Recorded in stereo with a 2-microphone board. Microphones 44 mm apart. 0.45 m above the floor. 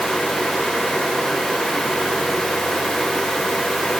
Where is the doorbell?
No doorbell in this recording.